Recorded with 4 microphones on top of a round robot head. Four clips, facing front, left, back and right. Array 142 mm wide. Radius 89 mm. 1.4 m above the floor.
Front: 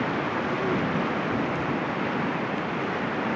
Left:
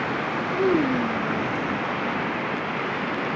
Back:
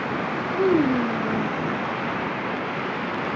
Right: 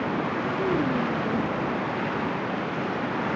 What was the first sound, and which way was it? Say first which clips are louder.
A child speaking: left 5 dB, back 10 dB; 140° left.